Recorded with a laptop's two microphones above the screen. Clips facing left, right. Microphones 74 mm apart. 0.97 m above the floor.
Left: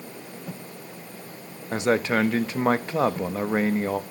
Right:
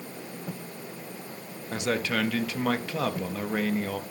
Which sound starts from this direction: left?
A man speaking, at 1.7 s.